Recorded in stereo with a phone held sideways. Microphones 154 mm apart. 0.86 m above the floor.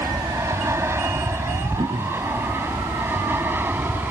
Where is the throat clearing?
30° right (ahead or behind).